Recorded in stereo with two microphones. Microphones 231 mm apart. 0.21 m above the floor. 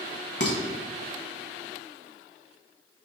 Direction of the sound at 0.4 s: 50° left (ahead or behind).